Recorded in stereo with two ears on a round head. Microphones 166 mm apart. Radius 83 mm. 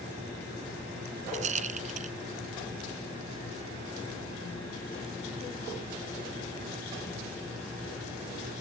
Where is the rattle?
40° right (ahead or behind).